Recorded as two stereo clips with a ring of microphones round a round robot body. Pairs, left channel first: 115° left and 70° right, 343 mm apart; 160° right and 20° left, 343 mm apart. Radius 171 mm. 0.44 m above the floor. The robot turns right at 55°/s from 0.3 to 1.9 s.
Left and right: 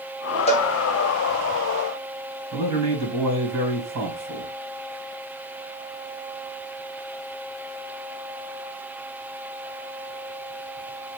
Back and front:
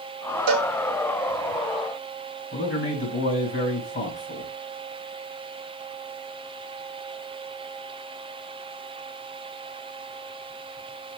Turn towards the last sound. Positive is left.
turn(degrees=-105)